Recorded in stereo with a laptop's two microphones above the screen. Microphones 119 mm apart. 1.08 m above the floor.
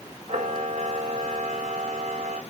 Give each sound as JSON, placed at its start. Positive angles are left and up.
{"t": 0.3, "sound": "a camera shutter", "side_deg": -65, "distance_m": 2.5}